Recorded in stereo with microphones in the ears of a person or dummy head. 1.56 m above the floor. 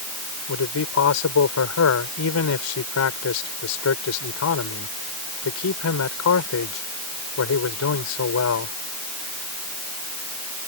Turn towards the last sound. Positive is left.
turn(degrees=80)